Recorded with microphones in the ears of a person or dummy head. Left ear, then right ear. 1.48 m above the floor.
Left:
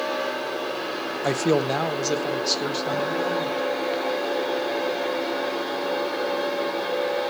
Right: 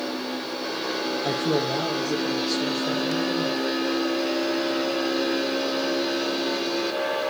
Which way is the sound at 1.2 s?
75° left (ahead or behind).